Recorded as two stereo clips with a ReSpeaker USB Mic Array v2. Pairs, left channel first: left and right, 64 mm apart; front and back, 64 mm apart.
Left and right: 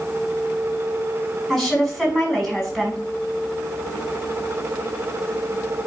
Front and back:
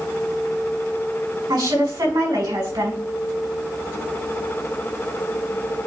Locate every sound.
1.5 s a woman speaking: straight behind, 5.5 m